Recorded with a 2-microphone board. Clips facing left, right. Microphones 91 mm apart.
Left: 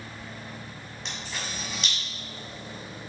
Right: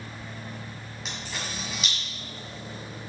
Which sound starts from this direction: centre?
A camera shutter, at 1.1 s.